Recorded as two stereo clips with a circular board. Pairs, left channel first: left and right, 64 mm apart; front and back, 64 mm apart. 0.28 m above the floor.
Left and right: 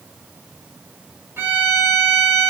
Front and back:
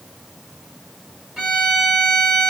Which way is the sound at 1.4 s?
95° right.